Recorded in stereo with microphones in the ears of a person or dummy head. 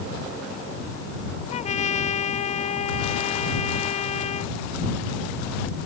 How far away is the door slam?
No door slam in this recording.